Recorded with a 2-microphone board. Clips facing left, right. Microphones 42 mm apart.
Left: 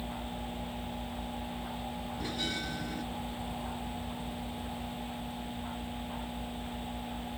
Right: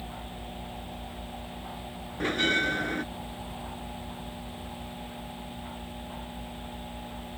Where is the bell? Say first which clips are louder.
Right 12 dB; 55° right (ahead or behind).